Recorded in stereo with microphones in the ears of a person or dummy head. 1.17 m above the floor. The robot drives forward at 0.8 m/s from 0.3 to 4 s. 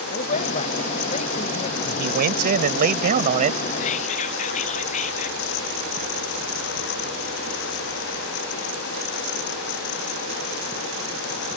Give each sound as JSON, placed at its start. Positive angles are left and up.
{"t": 0.1, "sound": "a man speaking", "side_deg": 45}
{"t": 1.8, "sound": "a man speaking", "side_deg": -50}
{"t": 3.8, "sound": "whispering", "side_deg": 40}